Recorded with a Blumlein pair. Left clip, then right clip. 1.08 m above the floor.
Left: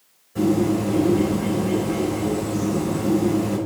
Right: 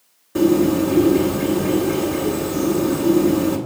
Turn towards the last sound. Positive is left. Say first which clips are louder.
# right 5 dB
turn(degrees=-40)